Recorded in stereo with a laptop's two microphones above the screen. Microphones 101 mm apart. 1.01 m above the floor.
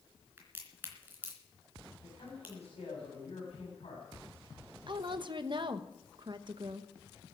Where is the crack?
20° right (ahead or behind), 3 m.